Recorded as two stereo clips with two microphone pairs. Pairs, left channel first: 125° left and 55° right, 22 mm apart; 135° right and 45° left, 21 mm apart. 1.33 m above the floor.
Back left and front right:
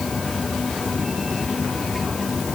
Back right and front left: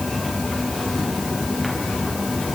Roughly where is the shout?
No shout in this recording.